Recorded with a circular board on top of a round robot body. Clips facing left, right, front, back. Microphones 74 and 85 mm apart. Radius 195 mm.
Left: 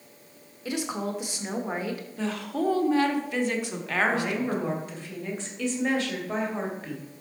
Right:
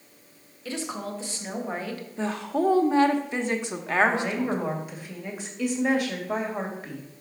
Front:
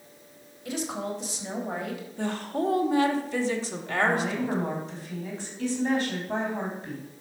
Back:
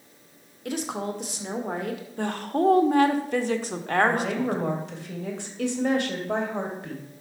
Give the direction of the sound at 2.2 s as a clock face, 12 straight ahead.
5 o'clock.